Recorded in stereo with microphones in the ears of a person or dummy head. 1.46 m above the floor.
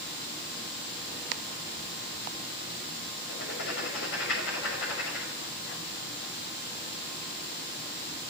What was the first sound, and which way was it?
Writing, 75° left (ahead or behind).